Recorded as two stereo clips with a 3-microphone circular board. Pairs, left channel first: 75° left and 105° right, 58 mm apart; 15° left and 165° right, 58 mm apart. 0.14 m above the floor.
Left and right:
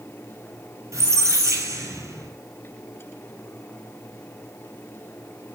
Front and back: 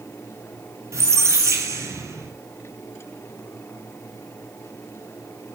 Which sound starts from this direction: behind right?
A squeak, at 0.9 s.